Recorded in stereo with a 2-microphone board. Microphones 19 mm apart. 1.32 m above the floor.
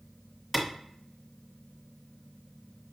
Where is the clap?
5° left (ahead or behind), 1.4 m.